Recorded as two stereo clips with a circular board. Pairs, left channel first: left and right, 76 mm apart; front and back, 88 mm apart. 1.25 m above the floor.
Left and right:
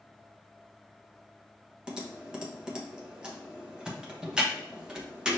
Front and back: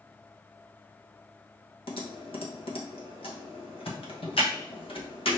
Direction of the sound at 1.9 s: 10° right.